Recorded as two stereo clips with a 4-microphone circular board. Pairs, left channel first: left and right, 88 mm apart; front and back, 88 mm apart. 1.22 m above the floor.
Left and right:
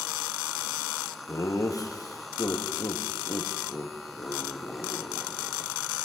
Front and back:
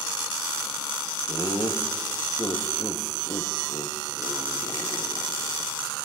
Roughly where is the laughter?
Ahead left.